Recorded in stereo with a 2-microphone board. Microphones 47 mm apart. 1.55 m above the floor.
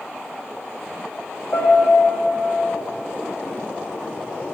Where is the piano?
60° left (ahead or behind), 1.8 m.